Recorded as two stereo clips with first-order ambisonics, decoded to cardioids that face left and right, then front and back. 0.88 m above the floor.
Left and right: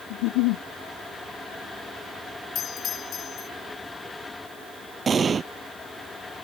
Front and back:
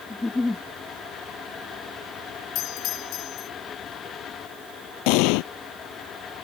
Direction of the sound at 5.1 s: 15° right.